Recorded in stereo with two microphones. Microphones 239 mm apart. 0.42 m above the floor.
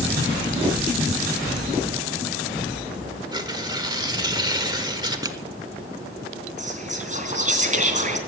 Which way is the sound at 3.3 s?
20° right (ahead or behind).